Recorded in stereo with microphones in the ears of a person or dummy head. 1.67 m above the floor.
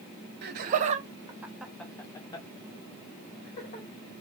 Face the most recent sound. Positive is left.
turn(degrees=45)  # may be behind; listen again after turning